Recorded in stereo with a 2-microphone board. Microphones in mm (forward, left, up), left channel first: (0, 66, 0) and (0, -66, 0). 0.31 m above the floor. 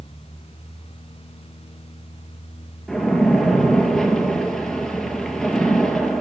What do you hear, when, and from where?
2.9 s a splash: 5° left (ahead or behind), 2 m